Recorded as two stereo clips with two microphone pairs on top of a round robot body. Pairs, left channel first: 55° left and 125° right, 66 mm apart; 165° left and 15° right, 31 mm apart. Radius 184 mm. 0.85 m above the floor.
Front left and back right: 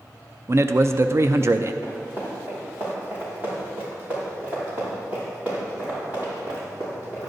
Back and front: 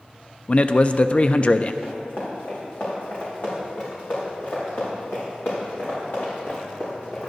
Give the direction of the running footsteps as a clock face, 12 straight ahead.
6 o'clock.